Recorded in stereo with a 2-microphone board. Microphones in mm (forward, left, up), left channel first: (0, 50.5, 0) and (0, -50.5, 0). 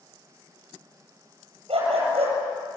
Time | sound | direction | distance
1.7 | a dog barking | 75° right (ahead or behind) | 8.5 m